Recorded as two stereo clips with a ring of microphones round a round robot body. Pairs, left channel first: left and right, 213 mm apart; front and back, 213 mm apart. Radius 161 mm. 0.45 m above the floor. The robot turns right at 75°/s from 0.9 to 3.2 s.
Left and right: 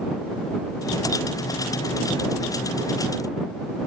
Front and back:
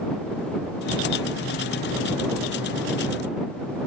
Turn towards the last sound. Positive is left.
No sound to turn to.